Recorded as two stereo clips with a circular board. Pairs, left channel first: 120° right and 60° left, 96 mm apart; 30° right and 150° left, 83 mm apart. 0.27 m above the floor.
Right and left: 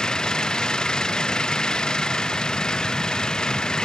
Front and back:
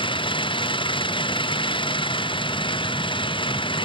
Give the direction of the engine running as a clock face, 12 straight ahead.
1 o'clock.